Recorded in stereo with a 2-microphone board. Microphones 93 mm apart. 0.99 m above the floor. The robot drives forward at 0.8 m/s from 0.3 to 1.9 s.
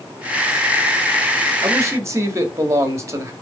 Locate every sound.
1.6 s a man speaking: 35° right (ahead or behind), 1.7 m; by 3.3 s 30° right (ahead or behind), 1.9 m